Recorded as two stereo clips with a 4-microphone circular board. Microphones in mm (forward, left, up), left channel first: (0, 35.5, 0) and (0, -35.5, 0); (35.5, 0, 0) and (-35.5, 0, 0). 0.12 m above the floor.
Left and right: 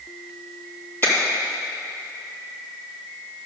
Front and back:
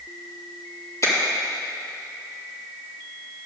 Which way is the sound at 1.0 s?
35° left.